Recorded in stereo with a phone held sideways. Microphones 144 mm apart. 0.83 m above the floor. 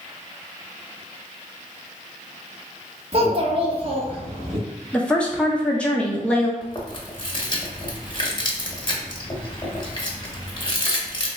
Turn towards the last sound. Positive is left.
turn(degrees=35)  # may be behind; listen again after turning